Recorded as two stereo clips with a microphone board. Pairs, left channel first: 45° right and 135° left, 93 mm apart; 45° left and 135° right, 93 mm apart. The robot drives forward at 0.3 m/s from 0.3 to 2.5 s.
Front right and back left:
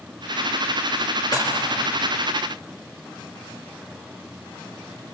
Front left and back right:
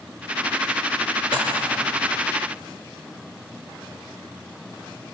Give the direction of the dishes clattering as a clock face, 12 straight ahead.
3 o'clock.